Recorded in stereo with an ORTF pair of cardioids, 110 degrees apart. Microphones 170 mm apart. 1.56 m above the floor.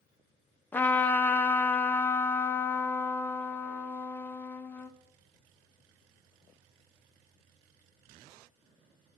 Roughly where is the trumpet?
Ahead.